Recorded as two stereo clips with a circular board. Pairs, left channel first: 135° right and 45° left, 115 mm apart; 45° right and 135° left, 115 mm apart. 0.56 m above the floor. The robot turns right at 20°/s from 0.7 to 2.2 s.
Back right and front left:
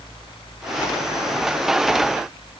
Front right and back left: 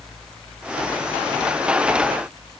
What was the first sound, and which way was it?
Only background noise.